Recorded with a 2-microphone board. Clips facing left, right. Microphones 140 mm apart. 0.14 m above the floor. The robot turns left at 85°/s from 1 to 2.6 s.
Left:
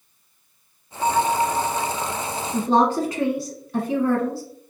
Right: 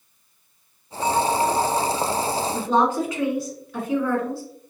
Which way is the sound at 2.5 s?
35° left (ahead or behind).